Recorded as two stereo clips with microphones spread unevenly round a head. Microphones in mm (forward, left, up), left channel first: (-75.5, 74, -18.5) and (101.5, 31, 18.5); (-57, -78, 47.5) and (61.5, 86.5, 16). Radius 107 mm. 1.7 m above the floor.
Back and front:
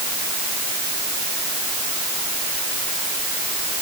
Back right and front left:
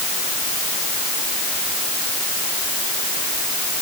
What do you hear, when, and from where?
Only background noise.